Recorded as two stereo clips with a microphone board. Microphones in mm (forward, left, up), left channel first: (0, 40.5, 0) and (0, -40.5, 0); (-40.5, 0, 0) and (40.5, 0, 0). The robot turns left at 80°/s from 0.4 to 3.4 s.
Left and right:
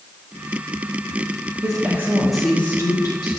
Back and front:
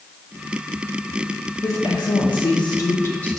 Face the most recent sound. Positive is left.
turn(degrees=95)